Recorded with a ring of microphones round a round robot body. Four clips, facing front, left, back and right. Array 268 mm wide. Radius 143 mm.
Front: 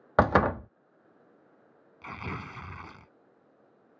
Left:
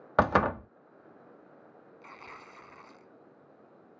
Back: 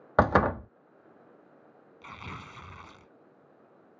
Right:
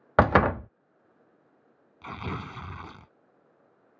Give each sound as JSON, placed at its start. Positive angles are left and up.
{"t": 0.2, "sound": "a door slam", "azimuth_deg": -90}
{"t": 2.0, "sound": "tearing paper", "azimuth_deg": -70}